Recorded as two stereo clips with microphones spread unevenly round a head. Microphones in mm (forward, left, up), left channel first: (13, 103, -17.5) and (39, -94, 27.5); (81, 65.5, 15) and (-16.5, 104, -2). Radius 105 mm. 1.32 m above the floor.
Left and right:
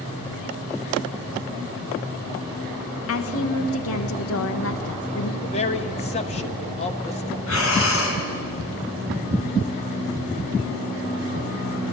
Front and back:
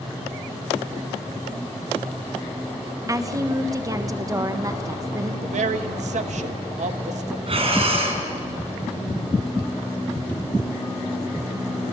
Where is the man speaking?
160° left, 1.3 m.